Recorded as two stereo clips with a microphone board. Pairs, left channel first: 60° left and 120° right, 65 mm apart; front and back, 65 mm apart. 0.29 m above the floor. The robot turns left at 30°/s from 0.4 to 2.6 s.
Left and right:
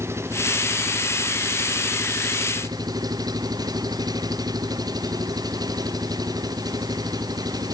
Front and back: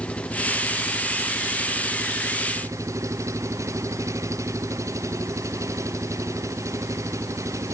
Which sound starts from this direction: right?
An engine running, at 0.0 s.